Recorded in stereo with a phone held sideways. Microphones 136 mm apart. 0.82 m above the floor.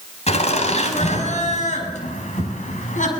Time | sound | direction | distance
0.3 | laughter | 55° left (ahead or behind) | 5 m